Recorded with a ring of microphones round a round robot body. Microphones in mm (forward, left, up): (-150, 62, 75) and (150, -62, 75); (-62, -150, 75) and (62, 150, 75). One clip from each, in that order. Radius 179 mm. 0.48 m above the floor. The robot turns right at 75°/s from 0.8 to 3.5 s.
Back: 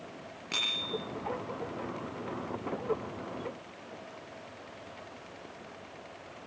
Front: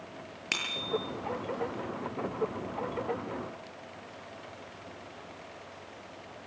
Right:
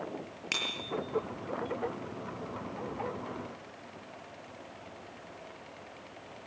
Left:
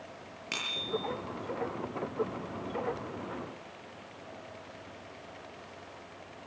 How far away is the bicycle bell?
About 8.5 m.